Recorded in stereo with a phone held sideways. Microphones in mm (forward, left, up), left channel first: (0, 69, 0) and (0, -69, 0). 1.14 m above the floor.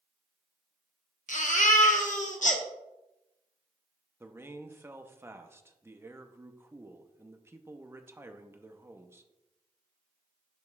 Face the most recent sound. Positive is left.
turn(degrees=-20)  # may be behind; listen again after turning